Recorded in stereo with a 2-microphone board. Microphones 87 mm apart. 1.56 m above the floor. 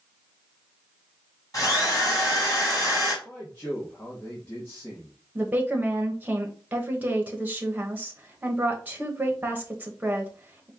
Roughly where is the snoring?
No snoring in this recording.